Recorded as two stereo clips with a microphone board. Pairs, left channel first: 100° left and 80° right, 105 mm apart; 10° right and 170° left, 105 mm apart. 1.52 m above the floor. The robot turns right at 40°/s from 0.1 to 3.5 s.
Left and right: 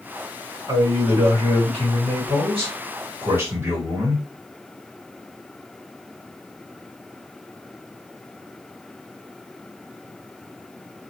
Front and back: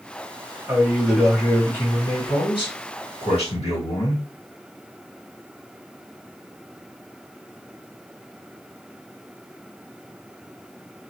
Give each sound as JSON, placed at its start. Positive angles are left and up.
{"t": 0.7, "sound": "a man speaking", "azimuth_deg": -120, "distance_m": 1.9}